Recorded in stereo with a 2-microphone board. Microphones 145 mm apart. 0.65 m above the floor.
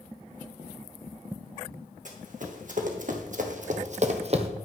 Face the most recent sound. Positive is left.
turn(degrees=-45)  # may be behind; listen again after turning